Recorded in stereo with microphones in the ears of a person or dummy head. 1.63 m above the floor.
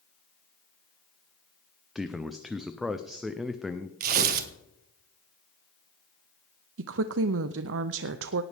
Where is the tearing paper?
50° right (ahead or behind), 1.3 m.